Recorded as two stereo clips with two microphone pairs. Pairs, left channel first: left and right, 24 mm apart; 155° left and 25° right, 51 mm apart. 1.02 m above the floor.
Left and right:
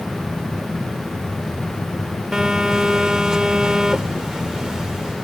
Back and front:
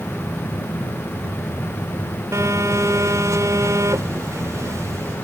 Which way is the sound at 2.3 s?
25° right.